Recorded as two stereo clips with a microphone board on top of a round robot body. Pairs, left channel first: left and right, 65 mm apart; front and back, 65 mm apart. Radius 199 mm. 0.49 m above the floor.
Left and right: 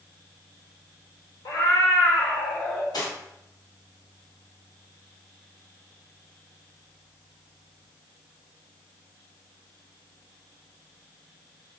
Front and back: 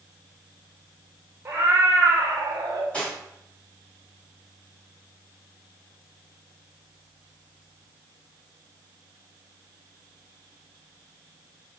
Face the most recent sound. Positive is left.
turn(degrees=70)